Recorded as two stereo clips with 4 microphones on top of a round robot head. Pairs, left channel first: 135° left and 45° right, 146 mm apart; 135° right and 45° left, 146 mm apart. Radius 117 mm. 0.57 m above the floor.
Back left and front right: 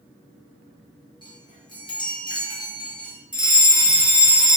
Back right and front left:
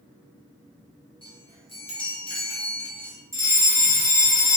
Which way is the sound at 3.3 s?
15° left.